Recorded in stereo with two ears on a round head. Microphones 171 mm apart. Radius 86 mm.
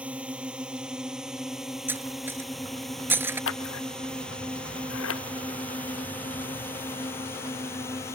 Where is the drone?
5° right (ahead or behind); by 8.1 s 15° left (ahead or behind).